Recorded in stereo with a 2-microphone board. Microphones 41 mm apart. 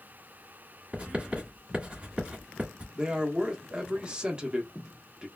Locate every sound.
0.9 s writing: 30° right (ahead or behind), 1.4 m
3.0 s a man speaking: 25° right (ahead or behind), 0.8 m